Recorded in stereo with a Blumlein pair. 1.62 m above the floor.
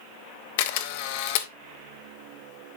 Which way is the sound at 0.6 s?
50° left.